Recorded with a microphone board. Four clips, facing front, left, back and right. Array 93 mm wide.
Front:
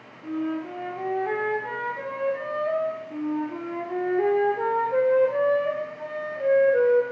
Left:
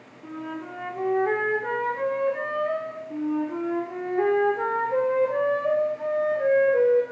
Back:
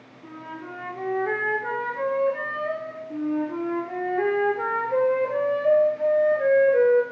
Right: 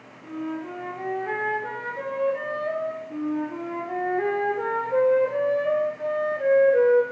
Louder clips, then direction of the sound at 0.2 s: Right 3 dB, front 9 dB; 135° left.